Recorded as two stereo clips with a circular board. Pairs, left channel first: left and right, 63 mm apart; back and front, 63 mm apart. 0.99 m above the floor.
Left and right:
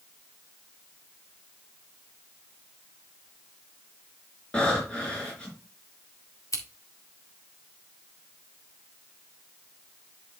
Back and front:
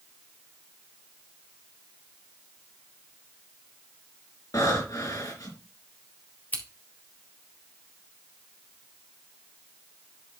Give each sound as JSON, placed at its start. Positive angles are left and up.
{"t": 4.5, "sound": "breathing", "azimuth_deg": 165, "distance_m": 4.5}
{"t": 6.5, "sound": "scissors", "azimuth_deg": 120, "distance_m": 2.0}